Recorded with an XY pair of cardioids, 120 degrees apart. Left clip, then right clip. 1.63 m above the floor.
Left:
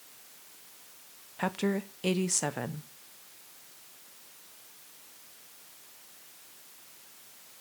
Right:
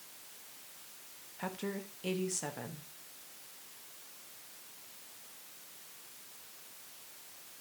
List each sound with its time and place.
1.4 s a woman speaking: 50° left, 1.0 m